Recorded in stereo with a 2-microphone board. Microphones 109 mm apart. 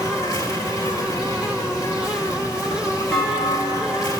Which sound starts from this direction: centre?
A clunk, at 3.1 s.